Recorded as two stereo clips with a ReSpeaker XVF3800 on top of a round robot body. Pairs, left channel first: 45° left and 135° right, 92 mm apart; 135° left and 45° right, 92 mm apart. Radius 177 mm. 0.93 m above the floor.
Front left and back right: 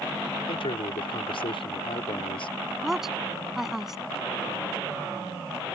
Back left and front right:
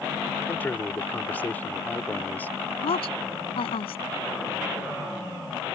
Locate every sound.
0.5 s a man speaking: 65° left
2.8 s a woman speaking: 140° left